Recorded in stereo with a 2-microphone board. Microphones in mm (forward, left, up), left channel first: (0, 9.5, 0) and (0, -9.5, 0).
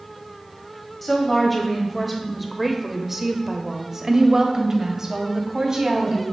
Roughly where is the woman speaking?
Centre.